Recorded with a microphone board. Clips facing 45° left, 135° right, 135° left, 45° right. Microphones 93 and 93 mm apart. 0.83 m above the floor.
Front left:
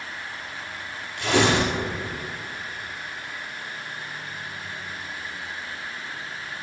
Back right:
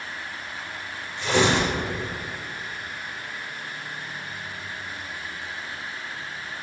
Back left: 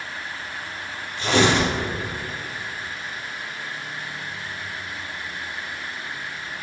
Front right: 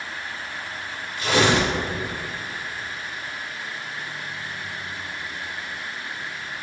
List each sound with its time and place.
1.2 s tearing paper: 75° left, 5 m